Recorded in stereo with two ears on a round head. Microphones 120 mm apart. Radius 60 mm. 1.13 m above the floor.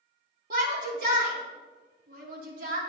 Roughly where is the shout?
Right.